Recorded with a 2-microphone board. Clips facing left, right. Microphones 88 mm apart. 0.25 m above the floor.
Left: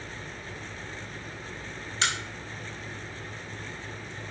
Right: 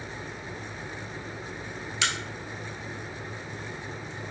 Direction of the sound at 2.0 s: 35° left (ahead or behind).